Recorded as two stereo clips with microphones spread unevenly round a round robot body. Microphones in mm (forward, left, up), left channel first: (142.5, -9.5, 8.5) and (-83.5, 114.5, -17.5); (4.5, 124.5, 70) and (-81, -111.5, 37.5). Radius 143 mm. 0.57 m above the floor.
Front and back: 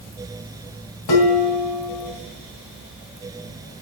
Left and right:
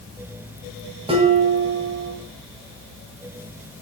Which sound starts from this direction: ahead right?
Dishes clattering, at 1.1 s.